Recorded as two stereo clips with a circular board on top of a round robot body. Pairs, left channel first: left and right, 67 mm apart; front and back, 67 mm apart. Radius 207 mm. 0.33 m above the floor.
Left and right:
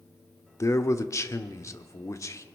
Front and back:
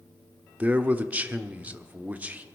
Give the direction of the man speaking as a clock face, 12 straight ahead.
8 o'clock.